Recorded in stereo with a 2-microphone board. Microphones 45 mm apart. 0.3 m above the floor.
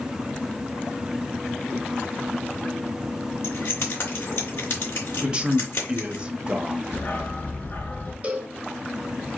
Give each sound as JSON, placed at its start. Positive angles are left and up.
{"t": 3.4, "sound": "keys jangling", "side_deg": 65, "distance_m": 2.5}
{"t": 5.2, "sound": "a man speaking", "side_deg": -20, "distance_m": 0.9}
{"t": 6.9, "sound": "a dog barking", "side_deg": 45, "distance_m": 1.9}
{"t": 8.2, "sound": "a cowbell", "side_deg": -30, "distance_m": 1.0}